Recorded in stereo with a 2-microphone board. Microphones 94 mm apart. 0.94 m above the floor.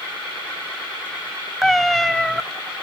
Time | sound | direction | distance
1.6 | a cat meowing | centre (ahead or behind) | 0.5 m